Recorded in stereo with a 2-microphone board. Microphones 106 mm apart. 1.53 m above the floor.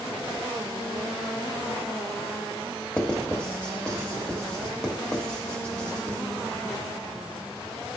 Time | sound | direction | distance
3.0 | writing | 10° left (ahead or behind) | 1.1 m